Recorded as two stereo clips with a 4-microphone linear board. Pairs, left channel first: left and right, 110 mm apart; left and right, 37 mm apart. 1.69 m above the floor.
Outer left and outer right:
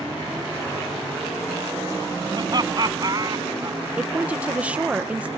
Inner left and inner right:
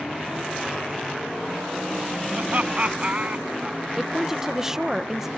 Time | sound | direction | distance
2.3 | laughter | 35° right (ahead or behind) | ?
4.0 | a woman speaking | 10° right (ahead or behind) | ?